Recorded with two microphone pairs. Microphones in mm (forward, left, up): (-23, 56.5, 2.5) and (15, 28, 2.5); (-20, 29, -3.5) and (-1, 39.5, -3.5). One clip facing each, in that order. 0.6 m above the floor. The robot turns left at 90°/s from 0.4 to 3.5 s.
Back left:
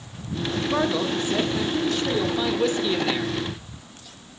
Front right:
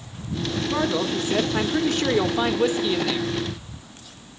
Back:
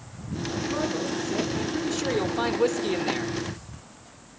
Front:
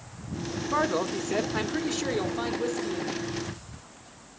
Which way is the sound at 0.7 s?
75° left.